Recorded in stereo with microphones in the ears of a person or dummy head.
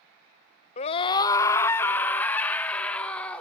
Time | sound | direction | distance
0.8 | a scream | 35° left (ahead or behind) | 1.0 m